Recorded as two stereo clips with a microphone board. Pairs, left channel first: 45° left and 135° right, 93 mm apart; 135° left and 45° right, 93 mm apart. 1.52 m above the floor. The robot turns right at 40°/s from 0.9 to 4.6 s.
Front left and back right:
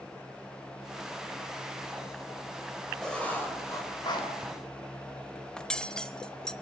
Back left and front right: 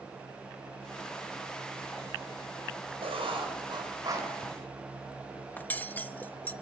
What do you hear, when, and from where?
3.0 s writing: 40° right, 4.5 m; by 4.3 s 10° left, 4.5 m
5.6 s cutlery clinking: 110° left, 0.8 m